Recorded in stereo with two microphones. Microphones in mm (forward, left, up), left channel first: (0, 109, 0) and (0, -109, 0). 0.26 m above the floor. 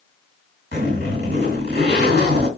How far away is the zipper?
About 2 m.